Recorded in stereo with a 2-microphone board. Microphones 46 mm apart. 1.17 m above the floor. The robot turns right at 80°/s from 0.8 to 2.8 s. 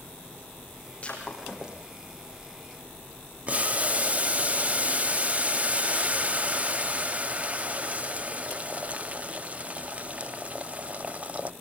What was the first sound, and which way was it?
Breaking glass, 30° left (ahead or behind).